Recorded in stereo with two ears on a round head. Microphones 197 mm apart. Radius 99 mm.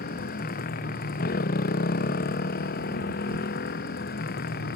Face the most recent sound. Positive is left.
turn(degrees=45)  # may be behind; listen again after turning